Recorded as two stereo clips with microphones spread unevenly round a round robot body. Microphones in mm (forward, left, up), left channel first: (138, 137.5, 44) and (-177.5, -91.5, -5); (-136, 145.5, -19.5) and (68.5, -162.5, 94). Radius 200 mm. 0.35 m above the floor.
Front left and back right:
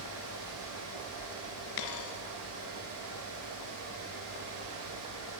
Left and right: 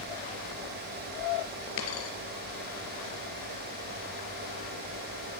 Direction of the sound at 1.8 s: 70° left.